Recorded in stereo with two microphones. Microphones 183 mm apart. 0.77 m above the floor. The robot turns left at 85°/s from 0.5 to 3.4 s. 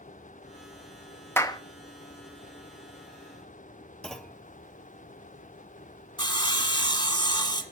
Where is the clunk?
5° left (ahead or behind), 0.7 m.